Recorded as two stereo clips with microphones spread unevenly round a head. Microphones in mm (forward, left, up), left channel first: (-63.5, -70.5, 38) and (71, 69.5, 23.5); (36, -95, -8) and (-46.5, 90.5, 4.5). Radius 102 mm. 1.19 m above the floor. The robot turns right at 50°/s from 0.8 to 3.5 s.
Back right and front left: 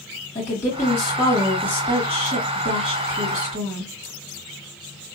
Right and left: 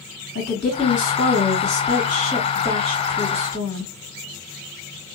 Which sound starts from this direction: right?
A woman speaking, at 0.3 s.